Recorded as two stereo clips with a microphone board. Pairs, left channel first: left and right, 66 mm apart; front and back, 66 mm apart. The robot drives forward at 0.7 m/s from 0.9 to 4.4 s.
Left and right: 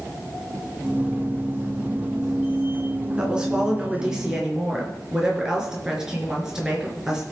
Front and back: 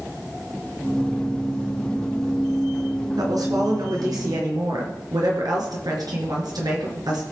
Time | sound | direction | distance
3.2 | a woman speaking | 165° right | 3 m